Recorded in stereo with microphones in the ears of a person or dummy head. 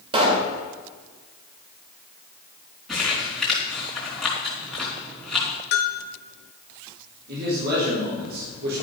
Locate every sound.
0.1 s a pop: 35° right (ahead or behind), 1.9 m
2.9 s crumpling: 5° left (ahead or behind), 3.5 m
5.7 s a bell: 50° left (ahead or behind), 1.3 m
7.3 s a man speaking: 60° right (ahead or behind), 4 m